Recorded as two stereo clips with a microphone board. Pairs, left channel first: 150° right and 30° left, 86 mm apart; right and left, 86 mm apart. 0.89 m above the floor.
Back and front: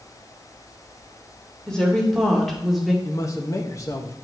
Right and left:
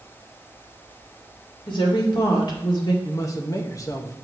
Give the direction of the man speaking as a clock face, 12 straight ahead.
4 o'clock.